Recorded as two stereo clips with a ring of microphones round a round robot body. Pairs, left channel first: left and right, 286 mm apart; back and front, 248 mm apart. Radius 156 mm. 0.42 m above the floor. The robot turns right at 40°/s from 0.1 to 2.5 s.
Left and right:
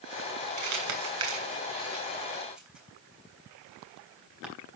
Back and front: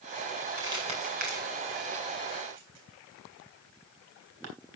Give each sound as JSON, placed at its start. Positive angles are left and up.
{"t": 0.6, "sound": "crumpling", "azimuth_deg": -80, "distance_m": 3.5}